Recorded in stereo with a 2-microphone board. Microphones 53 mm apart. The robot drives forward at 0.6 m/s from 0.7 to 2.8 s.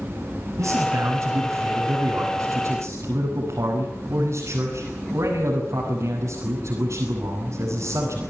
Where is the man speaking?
80° right, 8 m; by 8.2 s 75° right (ahead or behind), 8 m.